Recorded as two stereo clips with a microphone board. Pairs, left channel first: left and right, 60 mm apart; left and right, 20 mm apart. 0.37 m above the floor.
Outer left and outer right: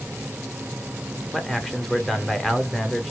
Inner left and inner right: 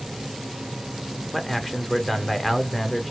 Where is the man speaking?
5° left (ahead or behind), 0.9 m.